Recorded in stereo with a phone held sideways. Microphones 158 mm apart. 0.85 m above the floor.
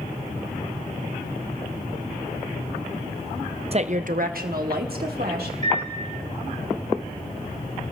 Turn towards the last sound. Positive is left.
turn(degrees=-45)  # may be behind; listen again after turning